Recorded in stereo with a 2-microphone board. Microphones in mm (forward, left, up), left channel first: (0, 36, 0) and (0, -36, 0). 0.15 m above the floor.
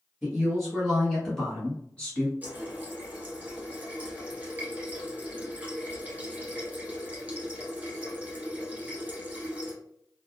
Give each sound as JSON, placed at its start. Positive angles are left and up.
{"t": 0.2, "sound": "a woman speaking", "side_deg": 0, "distance_m": 1.8}
{"t": 2.4, "sound": "a running tap", "side_deg": -20, "distance_m": 1.5}